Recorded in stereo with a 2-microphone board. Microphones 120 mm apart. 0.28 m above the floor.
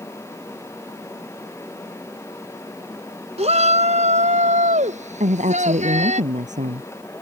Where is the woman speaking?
80° right.